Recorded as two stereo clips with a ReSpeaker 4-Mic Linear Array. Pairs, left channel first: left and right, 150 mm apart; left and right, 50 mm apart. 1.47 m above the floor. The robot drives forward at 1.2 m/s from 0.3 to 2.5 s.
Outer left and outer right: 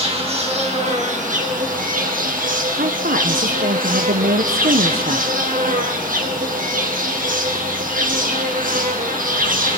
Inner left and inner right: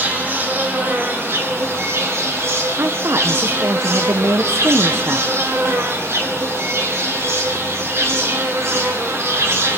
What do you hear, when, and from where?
0.0 s an insect: 40° right (ahead or behind), 3 m; by 9.8 s 65° right (ahead or behind), 2.5 m
2.8 s a woman speaking: 75° right (ahead or behind), 1.2 m